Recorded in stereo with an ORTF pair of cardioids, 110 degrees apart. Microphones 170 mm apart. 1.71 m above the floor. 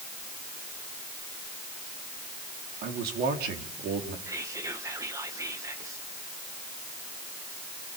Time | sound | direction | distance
2.8 | a man speaking | 70° right | 4.5 m
4.3 | whispering | 20° right | 1.6 m